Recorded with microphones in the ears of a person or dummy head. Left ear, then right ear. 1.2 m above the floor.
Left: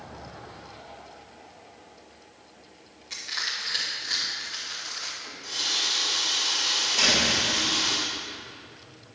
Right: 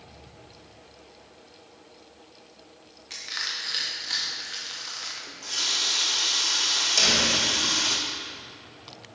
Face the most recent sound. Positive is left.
turn(degrees=-80)